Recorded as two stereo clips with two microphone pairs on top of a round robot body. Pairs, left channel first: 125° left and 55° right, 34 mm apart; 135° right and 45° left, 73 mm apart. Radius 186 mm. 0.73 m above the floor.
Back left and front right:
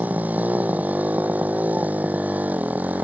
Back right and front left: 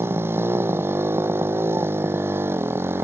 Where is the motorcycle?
10° right.